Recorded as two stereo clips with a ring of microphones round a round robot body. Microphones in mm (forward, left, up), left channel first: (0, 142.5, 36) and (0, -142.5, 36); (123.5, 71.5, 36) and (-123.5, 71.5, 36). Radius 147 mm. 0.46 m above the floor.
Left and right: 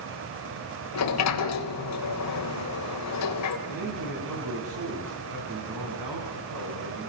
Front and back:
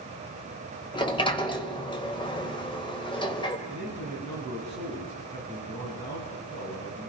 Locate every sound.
0.9 s a sliding door: 70° left, 2.5 m
3.7 s a man speaking: 70° right, 5.5 m